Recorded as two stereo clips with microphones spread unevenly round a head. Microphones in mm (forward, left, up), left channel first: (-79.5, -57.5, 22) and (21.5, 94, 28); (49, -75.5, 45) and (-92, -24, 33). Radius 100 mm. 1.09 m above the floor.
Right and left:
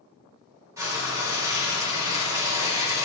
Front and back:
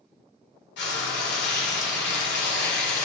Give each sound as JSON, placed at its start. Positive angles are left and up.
{"t": 0.8, "sound": "frying", "azimuth_deg": -20, "distance_m": 2.0}